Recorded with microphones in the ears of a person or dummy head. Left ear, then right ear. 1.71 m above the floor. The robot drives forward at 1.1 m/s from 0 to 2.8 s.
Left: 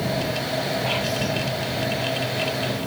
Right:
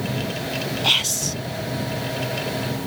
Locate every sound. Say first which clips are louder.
0.8 s whispering: right 4 dB; 75° right (ahead or behind); by 1.4 s 65° right (ahead or behind)